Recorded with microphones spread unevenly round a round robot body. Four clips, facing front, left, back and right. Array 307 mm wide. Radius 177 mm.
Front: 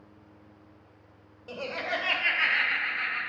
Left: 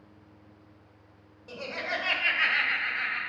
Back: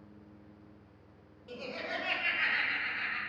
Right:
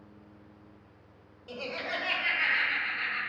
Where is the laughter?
Straight ahead, 1.7 m; by 3.2 s 75° left, 3 m.